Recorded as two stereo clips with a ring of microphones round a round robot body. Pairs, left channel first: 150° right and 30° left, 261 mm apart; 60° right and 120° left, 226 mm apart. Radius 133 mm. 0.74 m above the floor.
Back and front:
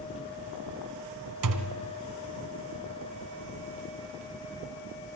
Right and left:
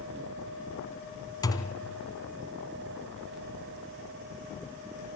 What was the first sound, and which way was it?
A thud, 15° left.